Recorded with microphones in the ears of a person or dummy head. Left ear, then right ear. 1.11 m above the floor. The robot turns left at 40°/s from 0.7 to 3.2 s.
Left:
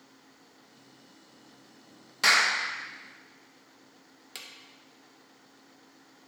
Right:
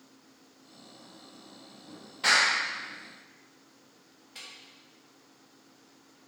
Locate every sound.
2.2 s a clap: 60° left (ahead or behind), 1.0 m; by 2.5 s 50° left (ahead or behind), 1.0 m
4.3 s a drawer: 55° left (ahead or behind), 0.6 m